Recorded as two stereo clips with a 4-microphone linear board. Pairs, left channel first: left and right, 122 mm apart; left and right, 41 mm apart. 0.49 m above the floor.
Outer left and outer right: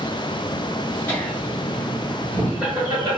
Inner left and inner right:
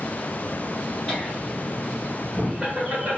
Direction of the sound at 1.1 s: 15° left (ahead or behind).